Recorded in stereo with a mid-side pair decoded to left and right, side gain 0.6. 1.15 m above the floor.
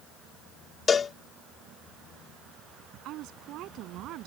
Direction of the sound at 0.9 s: 30° left.